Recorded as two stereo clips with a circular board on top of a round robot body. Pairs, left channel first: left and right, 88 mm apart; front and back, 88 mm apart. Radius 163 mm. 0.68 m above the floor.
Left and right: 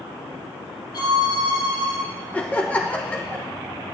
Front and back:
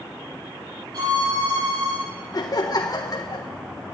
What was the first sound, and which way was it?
A violin, 135° left.